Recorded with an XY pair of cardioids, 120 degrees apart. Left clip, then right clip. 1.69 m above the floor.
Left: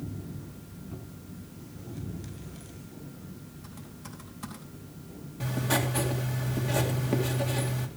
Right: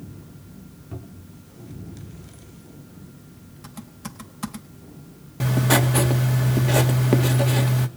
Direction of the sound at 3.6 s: 55° right.